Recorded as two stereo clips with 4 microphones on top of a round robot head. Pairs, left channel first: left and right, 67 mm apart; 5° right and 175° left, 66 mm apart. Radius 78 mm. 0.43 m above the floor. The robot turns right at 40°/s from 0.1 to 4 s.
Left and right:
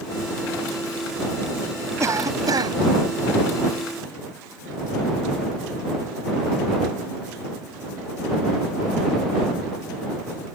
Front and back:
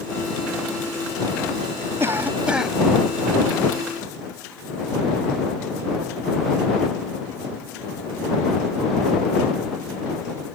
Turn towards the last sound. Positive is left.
turn(degrees=-50)